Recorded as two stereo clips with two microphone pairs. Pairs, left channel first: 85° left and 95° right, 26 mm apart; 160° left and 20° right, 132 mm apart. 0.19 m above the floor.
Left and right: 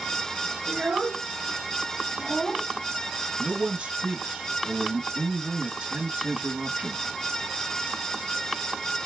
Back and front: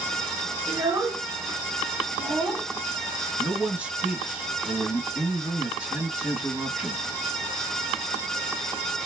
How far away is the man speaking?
About 2 m.